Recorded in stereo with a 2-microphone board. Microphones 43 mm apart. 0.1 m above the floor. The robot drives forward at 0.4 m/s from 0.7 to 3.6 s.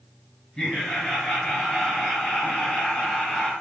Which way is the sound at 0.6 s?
20° left (ahead or behind).